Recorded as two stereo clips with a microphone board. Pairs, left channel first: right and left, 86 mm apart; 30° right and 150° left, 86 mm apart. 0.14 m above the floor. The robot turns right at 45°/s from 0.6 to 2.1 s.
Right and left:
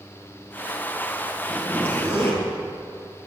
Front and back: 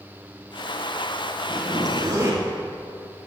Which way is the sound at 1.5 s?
Straight behind.